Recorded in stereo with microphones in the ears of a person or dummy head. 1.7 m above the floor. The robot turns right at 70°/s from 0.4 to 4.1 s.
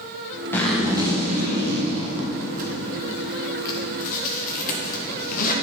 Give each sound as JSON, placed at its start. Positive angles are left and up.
{"t": 0.5, "sound": "a zipper", "side_deg": 15, "distance_m": 1.4}